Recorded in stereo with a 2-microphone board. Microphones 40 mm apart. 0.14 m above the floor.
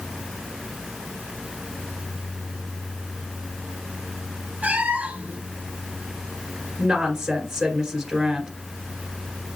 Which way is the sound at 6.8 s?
10° right (ahead or behind).